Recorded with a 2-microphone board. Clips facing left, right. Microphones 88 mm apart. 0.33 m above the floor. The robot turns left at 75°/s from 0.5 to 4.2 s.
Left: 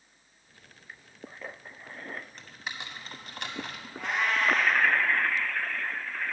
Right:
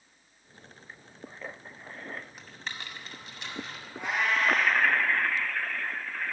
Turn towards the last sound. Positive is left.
turn(degrees=0)  # may be behind; listen again after turning